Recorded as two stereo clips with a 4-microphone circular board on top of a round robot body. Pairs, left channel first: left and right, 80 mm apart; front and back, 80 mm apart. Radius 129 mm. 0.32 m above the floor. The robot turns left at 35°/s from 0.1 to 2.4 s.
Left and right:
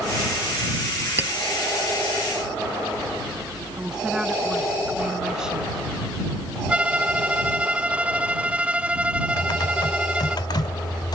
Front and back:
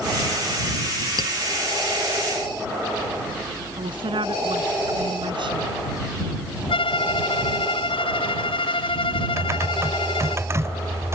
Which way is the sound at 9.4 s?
125° left.